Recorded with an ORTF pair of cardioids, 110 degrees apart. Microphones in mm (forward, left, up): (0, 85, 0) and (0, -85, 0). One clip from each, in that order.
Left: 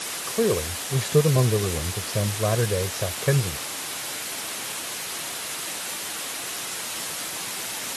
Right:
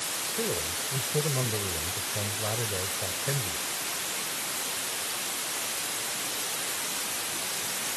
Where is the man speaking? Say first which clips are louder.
Left 10 dB; 60° left.